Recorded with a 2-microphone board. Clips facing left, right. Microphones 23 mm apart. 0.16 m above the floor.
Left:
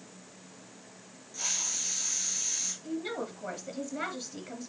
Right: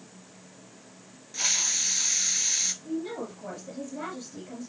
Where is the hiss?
50° right (ahead or behind), 0.8 m.